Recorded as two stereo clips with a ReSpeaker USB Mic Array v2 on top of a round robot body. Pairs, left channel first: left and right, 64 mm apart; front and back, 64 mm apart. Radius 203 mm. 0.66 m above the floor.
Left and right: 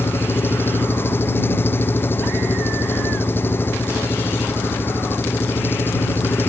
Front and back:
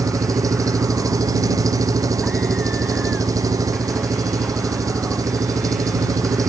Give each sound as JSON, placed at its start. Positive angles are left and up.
{"t": 0.0, "sound": "an engine running", "azimuth_deg": 150}